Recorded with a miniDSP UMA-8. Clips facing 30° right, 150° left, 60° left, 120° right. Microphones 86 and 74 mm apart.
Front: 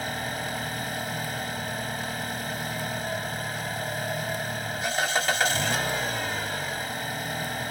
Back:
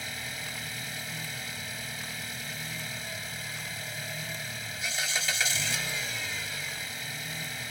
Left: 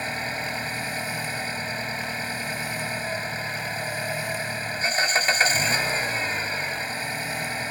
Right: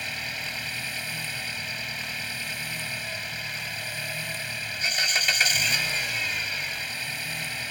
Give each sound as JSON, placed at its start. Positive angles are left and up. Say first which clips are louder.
{"t": 0.0, "sound": "an engine running", "louder": "front 9 dB, left 5 dB", "azimuth_deg": 5}